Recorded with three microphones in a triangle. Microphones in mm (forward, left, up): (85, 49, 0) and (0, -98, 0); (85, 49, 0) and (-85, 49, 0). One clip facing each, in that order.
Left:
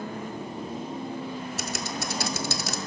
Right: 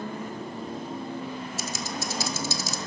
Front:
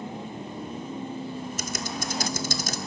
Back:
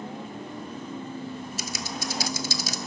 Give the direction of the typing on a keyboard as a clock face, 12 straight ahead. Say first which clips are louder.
Left 1 dB, front 2 dB; 11 o'clock.